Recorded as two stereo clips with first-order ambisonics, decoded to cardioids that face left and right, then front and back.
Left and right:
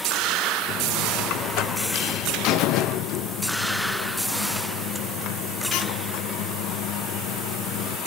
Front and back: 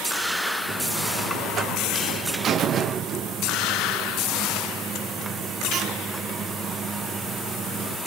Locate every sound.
0.7 s a buzzer: 120° left, 0.9 m